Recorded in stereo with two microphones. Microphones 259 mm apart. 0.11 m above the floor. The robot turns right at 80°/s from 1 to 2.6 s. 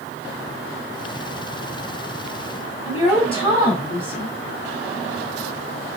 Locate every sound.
2.9 s a woman speaking: 20° left (ahead or behind), 3 m